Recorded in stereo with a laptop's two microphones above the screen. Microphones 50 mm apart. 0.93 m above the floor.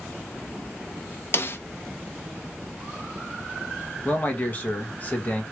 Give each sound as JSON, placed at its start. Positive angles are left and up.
{"t": 1.3, "sound": "a snare drum", "side_deg": 50, "distance_m": 0.6}
{"t": 4.0, "sound": "a man speaking", "side_deg": 35, "distance_m": 1.3}